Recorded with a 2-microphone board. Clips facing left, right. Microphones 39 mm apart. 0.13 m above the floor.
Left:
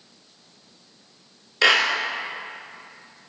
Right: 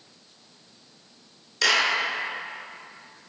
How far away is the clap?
About 1.4 m.